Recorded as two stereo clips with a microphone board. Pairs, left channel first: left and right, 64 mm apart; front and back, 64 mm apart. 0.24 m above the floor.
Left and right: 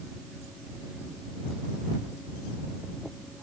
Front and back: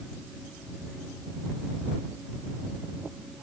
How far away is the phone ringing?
No phone ringing in this recording.